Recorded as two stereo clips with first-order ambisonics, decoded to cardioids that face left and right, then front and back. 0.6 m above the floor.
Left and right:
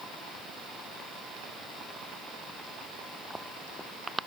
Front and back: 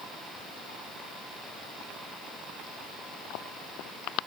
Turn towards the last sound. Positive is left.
No sound to turn to.